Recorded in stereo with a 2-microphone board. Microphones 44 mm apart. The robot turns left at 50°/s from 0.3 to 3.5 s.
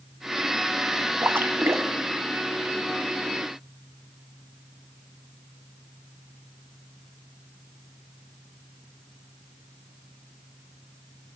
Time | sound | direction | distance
1.2 | a splash | 50° right | 0.6 m